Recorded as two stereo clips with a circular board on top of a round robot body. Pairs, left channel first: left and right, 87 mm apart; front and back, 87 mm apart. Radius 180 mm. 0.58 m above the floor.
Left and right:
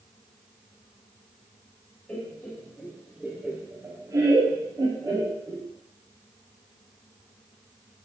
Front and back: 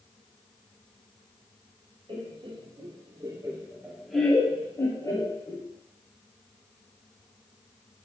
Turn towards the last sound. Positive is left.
turn(degrees=-45)